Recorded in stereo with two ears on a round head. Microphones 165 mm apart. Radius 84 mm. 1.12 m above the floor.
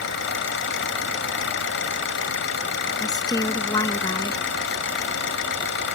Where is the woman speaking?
20° left (ahead or behind).